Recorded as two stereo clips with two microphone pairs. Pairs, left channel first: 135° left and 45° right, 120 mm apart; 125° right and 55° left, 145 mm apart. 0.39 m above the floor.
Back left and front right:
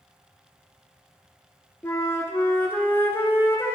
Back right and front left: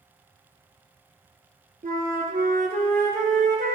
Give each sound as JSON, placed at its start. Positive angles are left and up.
{"t": 1.8, "sound": "a flute", "azimuth_deg": 65, "distance_m": 1.6}